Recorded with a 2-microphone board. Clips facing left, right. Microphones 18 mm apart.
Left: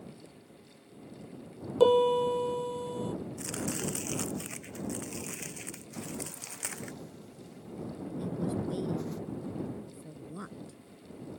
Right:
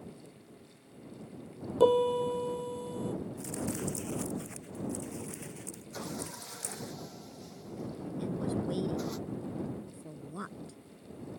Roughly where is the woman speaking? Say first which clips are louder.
Even; centre.